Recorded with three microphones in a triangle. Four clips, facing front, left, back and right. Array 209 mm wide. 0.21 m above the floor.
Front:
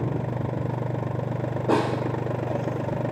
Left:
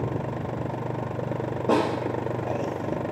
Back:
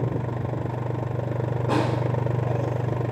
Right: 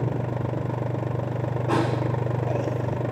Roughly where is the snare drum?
Ahead left.